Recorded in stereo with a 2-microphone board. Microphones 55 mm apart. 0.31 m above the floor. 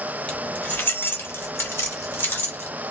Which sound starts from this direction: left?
Keys jangling, at 0.3 s.